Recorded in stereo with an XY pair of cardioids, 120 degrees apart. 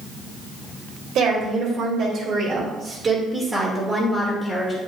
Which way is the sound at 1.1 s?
65° right.